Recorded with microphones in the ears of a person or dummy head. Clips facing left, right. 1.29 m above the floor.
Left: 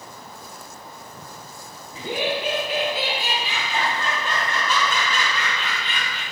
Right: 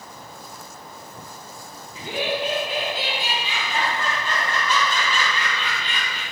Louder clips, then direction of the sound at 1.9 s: Left 1 dB; 70° left (ahead or behind).